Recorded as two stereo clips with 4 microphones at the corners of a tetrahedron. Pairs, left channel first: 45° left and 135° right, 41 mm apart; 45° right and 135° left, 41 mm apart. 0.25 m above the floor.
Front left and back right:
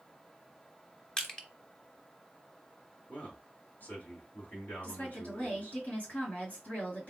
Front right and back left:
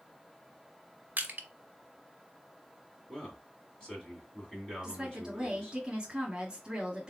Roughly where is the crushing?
Left.